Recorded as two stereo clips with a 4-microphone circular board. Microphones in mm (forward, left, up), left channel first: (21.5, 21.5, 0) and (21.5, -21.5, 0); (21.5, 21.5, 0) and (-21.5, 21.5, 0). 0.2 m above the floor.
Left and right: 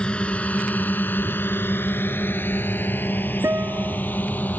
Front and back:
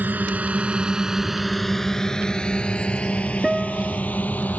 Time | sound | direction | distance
0.0 | a drone | 150° left | ?
3.4 | a guitar | 90° right | ?